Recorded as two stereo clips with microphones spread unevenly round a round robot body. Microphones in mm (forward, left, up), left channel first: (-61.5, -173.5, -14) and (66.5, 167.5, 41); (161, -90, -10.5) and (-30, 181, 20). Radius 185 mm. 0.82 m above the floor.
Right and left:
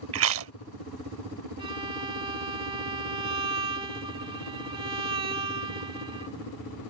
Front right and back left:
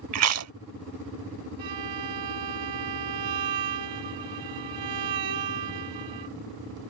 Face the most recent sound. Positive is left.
turn(degrees=145)